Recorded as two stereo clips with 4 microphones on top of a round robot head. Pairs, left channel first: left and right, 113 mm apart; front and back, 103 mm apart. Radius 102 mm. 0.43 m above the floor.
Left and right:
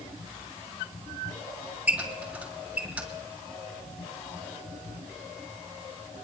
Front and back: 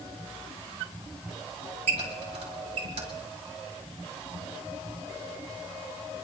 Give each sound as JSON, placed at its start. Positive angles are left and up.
{"t": 1.9, "sound": "a squeak", "azimuth_deg": -170, "distance_m": 5.5}